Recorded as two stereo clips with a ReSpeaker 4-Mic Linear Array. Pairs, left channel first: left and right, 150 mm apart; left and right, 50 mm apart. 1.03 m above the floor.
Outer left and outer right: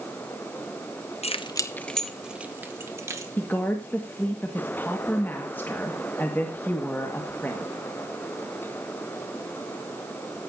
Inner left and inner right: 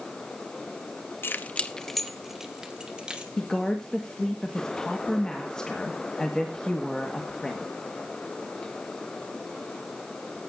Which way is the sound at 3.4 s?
15° left (ahead or behind).